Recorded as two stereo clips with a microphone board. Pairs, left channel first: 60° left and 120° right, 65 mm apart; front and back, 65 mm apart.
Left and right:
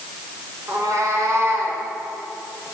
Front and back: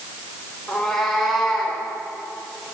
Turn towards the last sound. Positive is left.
turn(degrees=-95)